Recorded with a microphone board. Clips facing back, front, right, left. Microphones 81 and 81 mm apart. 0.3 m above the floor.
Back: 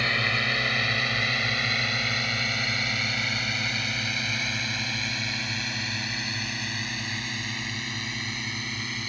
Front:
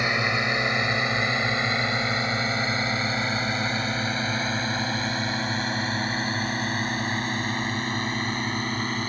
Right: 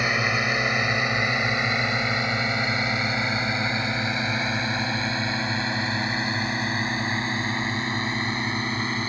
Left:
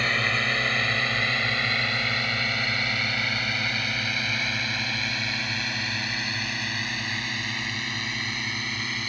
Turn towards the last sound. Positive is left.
turn(degrees=-40)